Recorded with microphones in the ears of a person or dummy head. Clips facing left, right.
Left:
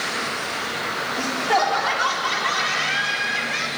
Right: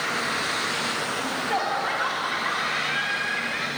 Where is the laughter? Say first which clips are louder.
Left 7 dB; 65° left (ahead or behind), 3.5 m; by 3.7 s 50° left (ahead or behind), 4.5 m.